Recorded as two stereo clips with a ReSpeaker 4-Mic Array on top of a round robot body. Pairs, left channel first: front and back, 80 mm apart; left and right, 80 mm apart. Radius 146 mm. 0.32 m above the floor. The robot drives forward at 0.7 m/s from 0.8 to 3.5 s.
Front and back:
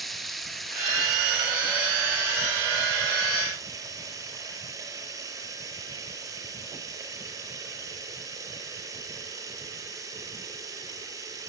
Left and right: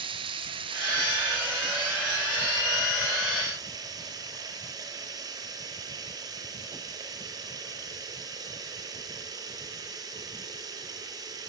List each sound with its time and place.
0.0 s running water: 90° right, 2 m; by 11.5 s 130° right, 3 m